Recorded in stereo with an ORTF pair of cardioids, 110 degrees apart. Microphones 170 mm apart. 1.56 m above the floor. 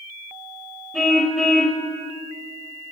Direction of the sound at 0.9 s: Straight ahead.